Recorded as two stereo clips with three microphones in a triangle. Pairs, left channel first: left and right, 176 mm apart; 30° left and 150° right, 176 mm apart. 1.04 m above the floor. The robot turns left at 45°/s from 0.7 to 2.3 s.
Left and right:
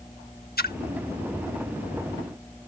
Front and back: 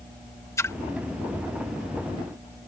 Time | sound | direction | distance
0.6 | a splash | 100° left | ?